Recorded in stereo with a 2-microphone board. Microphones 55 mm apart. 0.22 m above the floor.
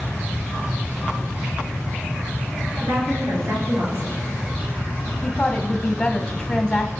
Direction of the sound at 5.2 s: 20° left (ahead or behind).